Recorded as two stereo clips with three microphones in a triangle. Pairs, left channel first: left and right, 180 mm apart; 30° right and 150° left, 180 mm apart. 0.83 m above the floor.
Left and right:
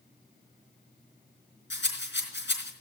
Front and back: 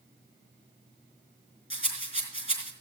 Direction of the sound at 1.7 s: 95° left.